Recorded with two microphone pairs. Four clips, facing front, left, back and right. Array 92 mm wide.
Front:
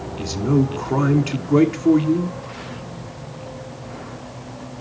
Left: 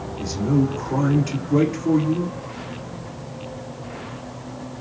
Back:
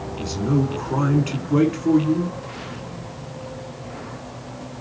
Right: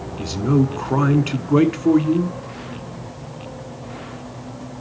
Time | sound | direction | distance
0.2 | a man speaking | 80° right | 1.2 m